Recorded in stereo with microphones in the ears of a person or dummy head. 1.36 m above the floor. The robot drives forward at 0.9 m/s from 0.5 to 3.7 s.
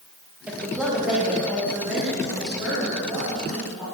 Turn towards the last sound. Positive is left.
turn(degrees=0)  # may be behind; listen again after turning